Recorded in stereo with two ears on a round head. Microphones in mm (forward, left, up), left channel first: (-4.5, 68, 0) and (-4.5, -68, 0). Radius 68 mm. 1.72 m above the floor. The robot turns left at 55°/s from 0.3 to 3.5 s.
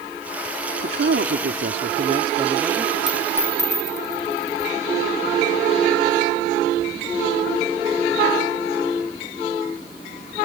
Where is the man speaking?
65° right; by 3.0 s straight behind.